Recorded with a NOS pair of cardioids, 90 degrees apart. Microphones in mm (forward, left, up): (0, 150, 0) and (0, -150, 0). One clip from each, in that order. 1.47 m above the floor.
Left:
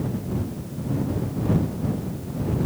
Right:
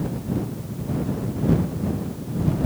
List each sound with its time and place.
Only background noise.